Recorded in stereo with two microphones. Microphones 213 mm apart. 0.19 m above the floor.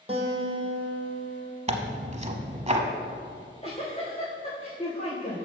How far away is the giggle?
About 3 m.